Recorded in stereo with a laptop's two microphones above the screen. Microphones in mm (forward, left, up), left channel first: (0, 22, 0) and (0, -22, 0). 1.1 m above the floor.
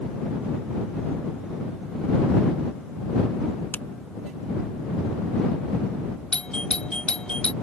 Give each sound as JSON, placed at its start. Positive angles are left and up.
{"t": 3.7, "sound": "a finger snap", "side_deg": 50}
{"t": 6.3, "sound": "a doorbell", "side_deg": 20}